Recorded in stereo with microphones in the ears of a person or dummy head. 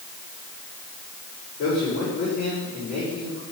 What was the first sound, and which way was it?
A man speaking, 50° left (ahead or behind).